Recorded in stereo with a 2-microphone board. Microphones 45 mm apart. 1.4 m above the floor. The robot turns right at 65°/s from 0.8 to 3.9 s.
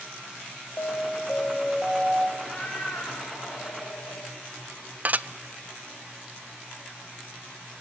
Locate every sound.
0.8 s an alarm: 110° left, 2 m; by 2.3 s 155° right, 2 m
2.4 s a cat meowing: 15° left, 5.5 m; by 4.4 s 115° left, 5.5 m
5.0 s dishes clattering: 40° right (ahead or behind), 0.5 m